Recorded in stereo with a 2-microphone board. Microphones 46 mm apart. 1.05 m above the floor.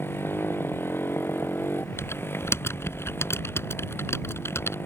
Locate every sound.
0.0 s a motorcycle: 55° left (ahead or behind)
2.0 s typing on a keyboard: 65° left (ahead or behind)